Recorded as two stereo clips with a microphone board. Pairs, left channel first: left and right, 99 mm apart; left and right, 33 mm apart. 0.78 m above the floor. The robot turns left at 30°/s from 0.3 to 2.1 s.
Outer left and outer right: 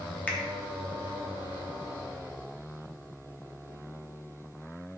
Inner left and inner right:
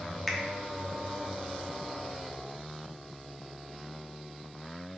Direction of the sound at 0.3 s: 15° left (ahead or behind).